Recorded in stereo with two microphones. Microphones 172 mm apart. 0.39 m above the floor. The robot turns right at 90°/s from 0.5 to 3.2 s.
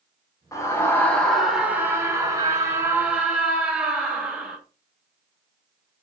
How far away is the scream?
About 1.2 m.